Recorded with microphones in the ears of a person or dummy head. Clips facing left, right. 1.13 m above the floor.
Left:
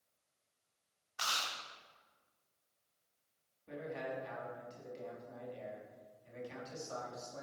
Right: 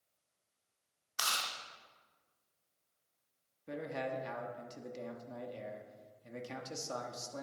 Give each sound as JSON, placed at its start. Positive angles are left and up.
{"t": 1.2, "sound": "chewing", "side_deg": -50, "distance_m": 1.9}
{"t": 3.7, "sound": "a man speaking", "side_deg": -65, "distance_m": 1.5}